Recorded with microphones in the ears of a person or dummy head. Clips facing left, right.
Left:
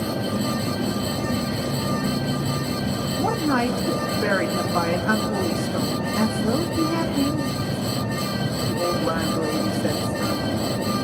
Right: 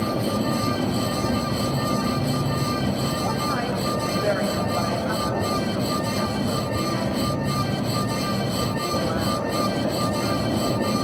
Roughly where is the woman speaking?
Left.